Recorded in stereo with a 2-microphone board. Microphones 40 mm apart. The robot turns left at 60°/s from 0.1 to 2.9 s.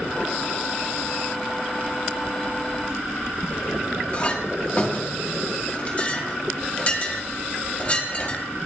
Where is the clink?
30° left (ahead or behind), 1.9 m.